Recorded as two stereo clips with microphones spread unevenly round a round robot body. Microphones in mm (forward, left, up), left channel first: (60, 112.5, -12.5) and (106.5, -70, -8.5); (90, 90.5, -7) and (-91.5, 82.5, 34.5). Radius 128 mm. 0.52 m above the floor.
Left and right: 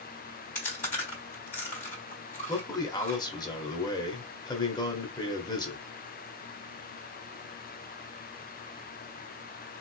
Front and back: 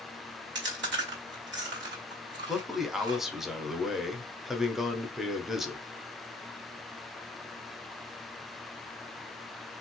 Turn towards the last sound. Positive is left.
turn(degrees=70)